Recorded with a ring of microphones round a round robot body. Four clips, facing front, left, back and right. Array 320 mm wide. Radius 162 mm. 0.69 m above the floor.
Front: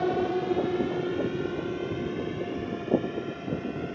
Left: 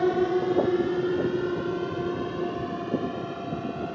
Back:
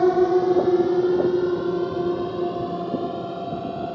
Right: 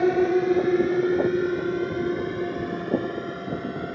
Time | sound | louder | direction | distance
0.0 | a drone | right 3 dB, back 9 dB | 160° right | ?